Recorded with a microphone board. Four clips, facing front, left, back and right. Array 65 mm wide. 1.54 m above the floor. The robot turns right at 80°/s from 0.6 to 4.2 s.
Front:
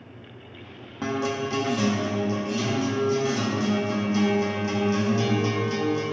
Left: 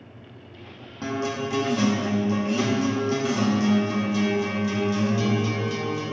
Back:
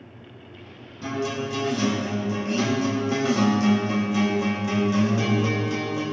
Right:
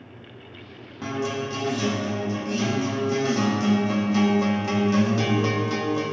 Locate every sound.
1.0 s a guitar: 5° left, 2 m; by 6.0 s 100° right, 2 m